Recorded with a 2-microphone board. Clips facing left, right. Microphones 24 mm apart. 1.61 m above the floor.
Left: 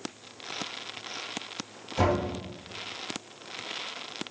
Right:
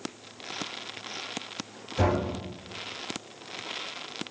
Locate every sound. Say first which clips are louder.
2.0 s knocking: even; 55° left (ahead or behind), 1.5 m